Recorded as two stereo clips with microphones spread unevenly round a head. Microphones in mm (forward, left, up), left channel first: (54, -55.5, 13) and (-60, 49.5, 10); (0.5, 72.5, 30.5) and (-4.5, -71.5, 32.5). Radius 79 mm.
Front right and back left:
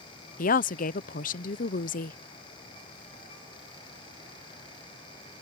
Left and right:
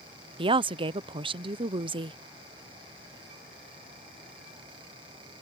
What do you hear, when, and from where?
0.4 s a woman speaking: 45° right